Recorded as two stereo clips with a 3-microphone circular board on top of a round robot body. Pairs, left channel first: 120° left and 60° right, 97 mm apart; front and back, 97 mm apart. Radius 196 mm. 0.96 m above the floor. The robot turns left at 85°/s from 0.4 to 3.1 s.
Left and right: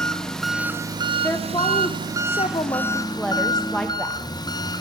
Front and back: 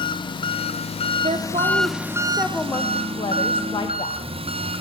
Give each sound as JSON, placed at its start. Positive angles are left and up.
{"t": 0.0, "sound": "an engine running", "azimuth_deg": 35, "distance_m": 0.9}
{"t": 1.2, "sound": "a woman speaking", "azimuth_deg": -165, "distance_m": 0.6}